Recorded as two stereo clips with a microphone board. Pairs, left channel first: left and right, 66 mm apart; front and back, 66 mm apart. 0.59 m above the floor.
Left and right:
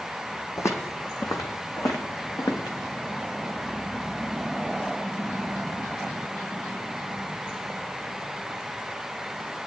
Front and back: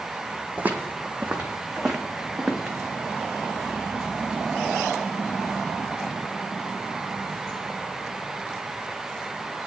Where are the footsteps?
125° left, 1.2 m; by 2.8 s 95° left, 2 m.